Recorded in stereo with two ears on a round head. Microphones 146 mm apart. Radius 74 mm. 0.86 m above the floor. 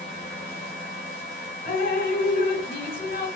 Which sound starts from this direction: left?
Dripping, at 1.6 s.